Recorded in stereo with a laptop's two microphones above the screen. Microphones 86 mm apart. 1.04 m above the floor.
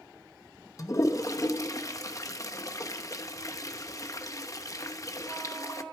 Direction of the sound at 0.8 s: 40° left (ahead or behind).